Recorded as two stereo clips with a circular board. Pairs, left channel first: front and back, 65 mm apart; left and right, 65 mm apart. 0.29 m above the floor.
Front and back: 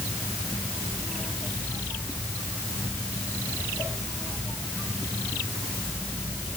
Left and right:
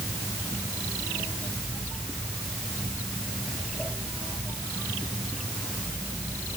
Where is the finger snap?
No finger snap in this recording.